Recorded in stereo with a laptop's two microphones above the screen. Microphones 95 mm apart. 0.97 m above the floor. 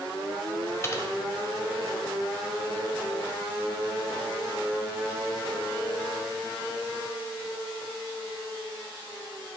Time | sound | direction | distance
0.8 | typing on a keyboard | 30° left (ahead or behind) | 1.0 m